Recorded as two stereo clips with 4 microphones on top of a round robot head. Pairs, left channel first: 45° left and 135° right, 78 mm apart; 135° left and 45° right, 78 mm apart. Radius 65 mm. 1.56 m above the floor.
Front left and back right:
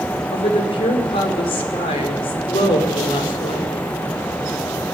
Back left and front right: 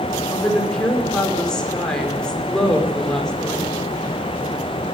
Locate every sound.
0.3 s a woman speaking: 50° left, 5 m